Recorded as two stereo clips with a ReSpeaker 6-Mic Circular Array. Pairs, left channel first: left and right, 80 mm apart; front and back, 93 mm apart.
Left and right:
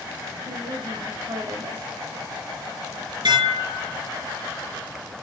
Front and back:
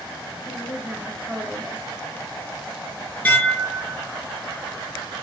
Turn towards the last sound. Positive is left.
turn(degrees=-75)